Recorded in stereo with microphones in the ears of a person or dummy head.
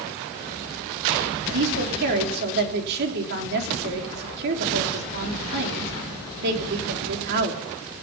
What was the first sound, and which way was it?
A woman speaking, 60° right (ahead or behind).